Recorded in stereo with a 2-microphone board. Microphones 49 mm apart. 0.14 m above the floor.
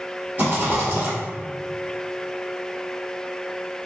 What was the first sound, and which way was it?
A rattle, 45° right (ahead or behind).